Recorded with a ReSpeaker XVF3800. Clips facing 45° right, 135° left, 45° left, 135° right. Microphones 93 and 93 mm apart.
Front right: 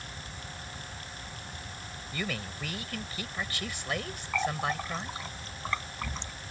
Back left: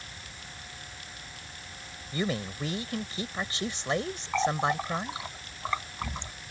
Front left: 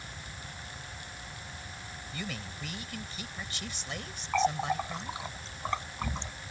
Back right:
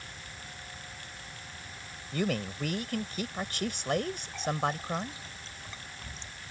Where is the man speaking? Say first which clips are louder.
Back left 6 dB, back right 10 dB; 160° right.